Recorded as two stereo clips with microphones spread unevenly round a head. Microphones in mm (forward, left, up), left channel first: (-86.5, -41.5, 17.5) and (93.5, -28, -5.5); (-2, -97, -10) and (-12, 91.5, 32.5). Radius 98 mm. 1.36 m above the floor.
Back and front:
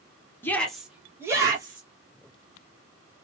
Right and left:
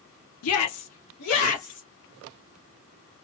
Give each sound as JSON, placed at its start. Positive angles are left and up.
{"t": 0.4, "sound": "a shout", "azimuth_deg": -100, "distance_m": 0.9}